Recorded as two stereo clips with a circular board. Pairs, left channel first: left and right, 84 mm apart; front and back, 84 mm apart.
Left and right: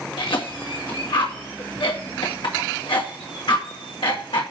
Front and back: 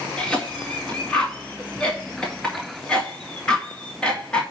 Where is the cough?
80° left, 2.5 m.